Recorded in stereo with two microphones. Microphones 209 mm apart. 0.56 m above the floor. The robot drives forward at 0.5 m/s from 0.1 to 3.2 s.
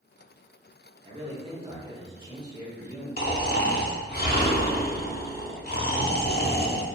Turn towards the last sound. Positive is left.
turn(degrees=50)  # may be behind; listen again after turning